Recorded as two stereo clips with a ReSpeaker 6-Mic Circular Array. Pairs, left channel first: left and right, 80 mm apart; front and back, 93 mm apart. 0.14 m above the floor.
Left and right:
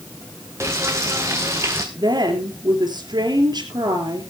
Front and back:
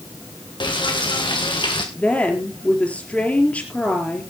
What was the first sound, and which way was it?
Frying, 35° right.